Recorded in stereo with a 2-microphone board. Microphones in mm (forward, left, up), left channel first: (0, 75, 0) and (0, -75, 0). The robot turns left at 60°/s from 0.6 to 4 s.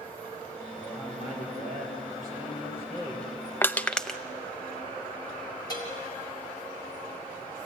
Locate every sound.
0.8 s a man speaking: 165° left, 6.5 m; by 3.3 s 10° left, 6.5 m
3.6 s crushing: 15° left (ahead or behind), 0.7 m; by 4.2 s 5° left (ahead or behind), 0.7 m
5.7 s a bell: 25° left (ahead or behind), 4 m